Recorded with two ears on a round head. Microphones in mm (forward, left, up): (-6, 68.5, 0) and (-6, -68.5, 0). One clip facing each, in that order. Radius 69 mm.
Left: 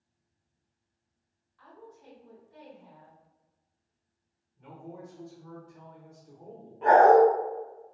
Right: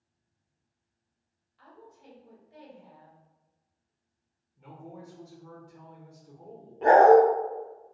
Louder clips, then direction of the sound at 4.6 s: Left 1 dB; 20° right (ahead or behind).